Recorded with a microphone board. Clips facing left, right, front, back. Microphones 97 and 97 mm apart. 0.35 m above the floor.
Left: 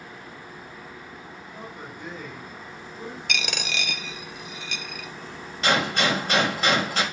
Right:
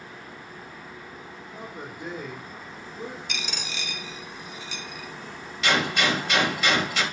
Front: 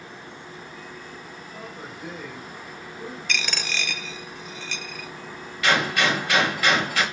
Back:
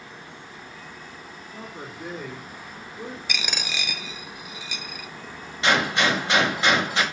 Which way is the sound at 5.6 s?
125° left.